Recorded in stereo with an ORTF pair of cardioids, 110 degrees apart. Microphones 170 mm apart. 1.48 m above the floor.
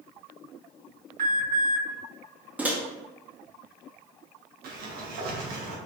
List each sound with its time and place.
1.2 s an alarm: 55° right, 2.0 m
2.6 s a microwave: 10° right, 0.5 m
4.6 s a sliding door: 65° right, 0.9 m